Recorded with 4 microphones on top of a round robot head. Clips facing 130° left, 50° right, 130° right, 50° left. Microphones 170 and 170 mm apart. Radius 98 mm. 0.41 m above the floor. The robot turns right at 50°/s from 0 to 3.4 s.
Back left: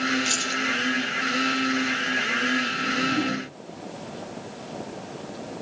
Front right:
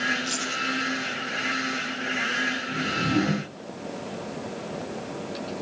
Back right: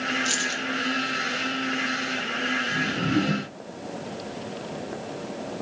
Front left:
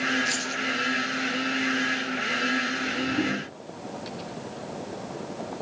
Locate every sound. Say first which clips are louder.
0.2 s keys jangling: back left 2 dB, back right 1 dB; 165° left, 7 m; by 0.6 s 175° right, 7 m
2.7 s a whoosh: front right 1 dB, back right 3 dB; 110° right, 4.5 m; by 3.5 s 75° right, 4.5 m